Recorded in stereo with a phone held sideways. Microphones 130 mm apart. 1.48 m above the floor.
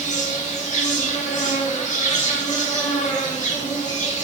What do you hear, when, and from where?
0.0 s an insect: 75° left (ahead or behind), 1.7 m